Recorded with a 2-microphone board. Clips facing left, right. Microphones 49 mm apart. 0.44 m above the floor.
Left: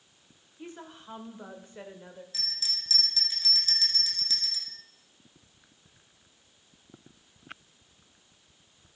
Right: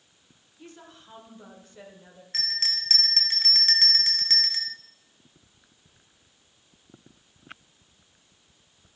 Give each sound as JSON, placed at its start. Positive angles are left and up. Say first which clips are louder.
{"t": 0.6, "sound": "a woman speaking", "louder": "left 4 dB", "side_deg": 25, "distance_m": 1.6}
{"t": 2.3, "sound": "a bell", "louder": "right 11 dB", "side_deg": -55, "distance_m": 1.3}